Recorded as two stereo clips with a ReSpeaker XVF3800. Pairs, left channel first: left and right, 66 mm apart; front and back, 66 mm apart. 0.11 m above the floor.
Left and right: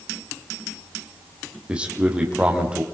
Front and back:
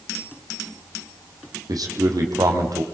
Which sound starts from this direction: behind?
A man speaking, at 1.7 s.